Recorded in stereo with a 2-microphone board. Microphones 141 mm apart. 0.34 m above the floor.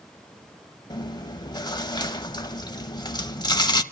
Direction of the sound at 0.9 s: 30° left (ahead or behind).